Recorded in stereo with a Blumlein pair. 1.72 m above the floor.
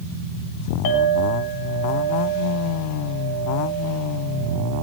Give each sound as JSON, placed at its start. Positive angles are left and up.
{"t": 0.8, "sound": "a clink", "azimuth_deg": 55, "distance_m": 4.0}